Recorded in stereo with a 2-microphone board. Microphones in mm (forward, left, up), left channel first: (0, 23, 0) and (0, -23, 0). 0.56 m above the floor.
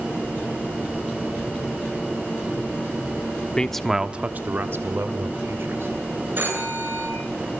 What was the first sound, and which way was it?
A man speaking, 20° left (ahead or behind).